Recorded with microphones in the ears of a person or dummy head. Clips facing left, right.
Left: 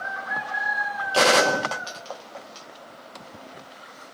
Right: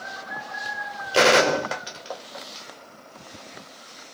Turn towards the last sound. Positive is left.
turn(degrees=-20)  # may be behind; listen again after turning